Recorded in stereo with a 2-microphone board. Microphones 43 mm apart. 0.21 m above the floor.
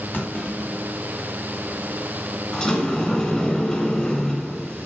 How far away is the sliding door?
About 1.4 m.